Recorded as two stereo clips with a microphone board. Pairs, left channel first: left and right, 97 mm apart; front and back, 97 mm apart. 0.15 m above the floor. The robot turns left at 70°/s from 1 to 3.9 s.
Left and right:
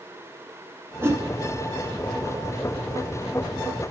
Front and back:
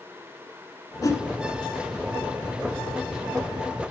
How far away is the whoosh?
About 1.2 m.